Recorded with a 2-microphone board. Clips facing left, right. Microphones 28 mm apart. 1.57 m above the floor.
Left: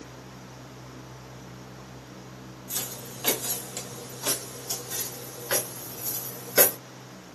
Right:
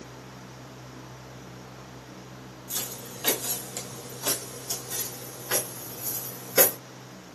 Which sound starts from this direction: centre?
Footsteps, at 2.7 s.